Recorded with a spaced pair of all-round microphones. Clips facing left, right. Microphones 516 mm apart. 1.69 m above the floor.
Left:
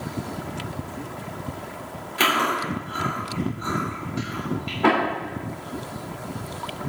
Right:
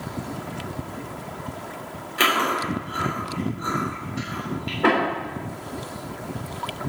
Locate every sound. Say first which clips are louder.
2.2 s chewing: even; 5° left (ahead or behind), 4 m